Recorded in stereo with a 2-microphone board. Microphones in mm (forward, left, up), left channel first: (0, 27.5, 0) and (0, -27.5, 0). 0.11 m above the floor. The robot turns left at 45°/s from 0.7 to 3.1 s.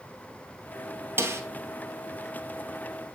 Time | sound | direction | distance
1.2 | a snare drum | 45° right (ahead or behind) | 1.3 m